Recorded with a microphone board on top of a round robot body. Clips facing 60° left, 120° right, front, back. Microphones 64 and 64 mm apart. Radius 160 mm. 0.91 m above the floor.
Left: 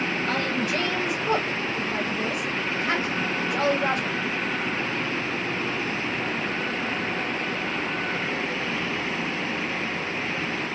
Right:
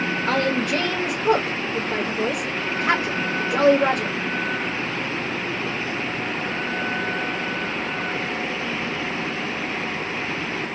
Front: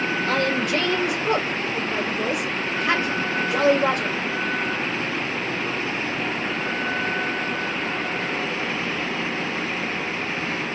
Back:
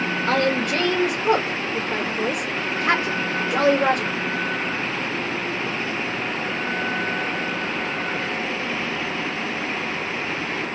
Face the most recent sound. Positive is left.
turn(degrees=-145)